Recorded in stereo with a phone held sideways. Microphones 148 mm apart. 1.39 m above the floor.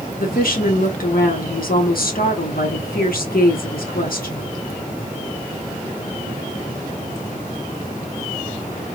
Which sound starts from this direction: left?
A woman speaking, at 0.2 s.